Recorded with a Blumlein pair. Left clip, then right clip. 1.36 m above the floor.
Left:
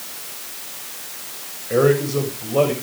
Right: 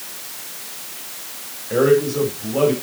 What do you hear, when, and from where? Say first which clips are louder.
1.7 s a man speaking: right 1 dB; 60° left, 5.5 m